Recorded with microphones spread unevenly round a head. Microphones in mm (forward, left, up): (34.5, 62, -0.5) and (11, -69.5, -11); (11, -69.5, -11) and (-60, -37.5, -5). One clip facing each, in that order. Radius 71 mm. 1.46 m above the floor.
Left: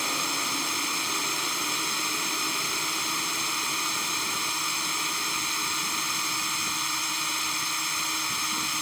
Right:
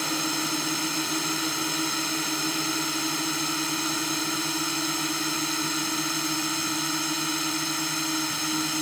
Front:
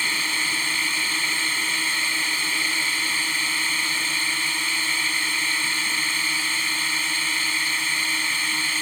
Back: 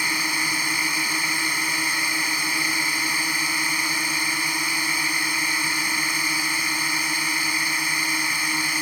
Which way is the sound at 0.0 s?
130° right.